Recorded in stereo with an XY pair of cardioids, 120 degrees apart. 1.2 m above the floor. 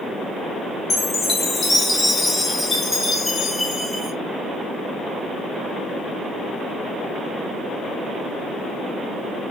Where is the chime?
25° left, 0.8 m.